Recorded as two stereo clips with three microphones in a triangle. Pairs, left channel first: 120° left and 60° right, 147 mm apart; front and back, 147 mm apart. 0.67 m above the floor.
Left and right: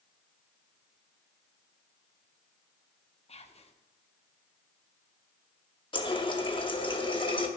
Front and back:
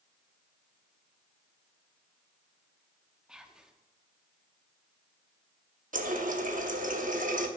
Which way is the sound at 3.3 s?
95° left.